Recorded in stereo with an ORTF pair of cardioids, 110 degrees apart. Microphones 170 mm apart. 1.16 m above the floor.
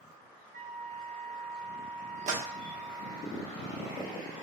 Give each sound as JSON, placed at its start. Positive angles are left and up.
{"t": 0.5, "sound": "a flute", "azimuth_deg": -70, "distance_m": 1.6}
{"t": 2.3, "sound": "a clap", "azimuth_deg": -45, "distance_m": 0.7}